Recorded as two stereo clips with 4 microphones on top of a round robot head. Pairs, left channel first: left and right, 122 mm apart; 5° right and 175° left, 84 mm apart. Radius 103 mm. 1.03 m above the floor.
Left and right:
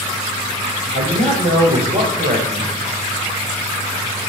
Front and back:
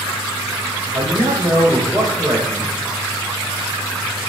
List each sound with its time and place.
0.9 s a man speaking: 115° right, 4 m